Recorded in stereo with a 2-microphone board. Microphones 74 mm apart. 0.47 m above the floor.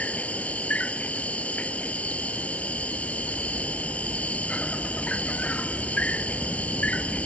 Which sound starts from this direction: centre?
An insect, at 0.0 s.